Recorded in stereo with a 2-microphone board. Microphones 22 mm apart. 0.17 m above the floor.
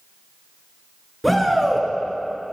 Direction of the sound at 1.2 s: 5° right (ahead or behind).